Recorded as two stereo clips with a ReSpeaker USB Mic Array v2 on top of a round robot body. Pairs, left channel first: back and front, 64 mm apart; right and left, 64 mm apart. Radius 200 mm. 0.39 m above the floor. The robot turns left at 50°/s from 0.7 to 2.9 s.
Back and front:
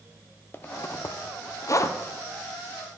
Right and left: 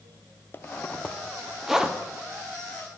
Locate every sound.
0.5 s a zipper: 135° right, 0.7 m; by 2.0 s 160° left, 0.7 m